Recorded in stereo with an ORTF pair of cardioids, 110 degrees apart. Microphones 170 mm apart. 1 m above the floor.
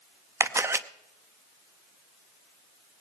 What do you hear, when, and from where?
0.4 s a camera shutter: 15° right, 0.8 m